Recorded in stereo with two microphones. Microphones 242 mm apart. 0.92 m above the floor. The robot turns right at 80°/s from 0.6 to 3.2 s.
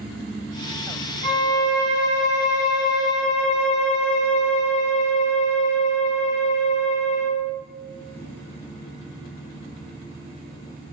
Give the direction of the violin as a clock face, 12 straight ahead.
5 o'clock.